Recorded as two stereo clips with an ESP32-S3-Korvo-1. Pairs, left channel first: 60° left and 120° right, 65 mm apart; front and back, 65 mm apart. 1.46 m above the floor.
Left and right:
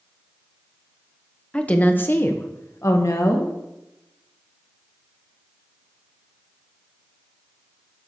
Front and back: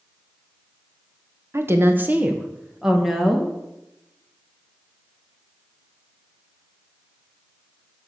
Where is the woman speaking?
135° left, 1.4 m; by 3.5 s 90° left, 2 m.